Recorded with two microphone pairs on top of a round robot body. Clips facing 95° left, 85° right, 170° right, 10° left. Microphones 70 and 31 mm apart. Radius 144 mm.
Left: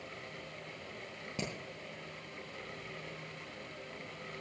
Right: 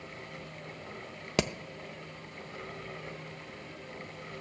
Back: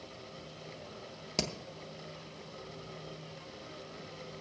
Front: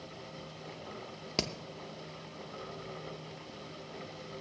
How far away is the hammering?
About 0.7 m.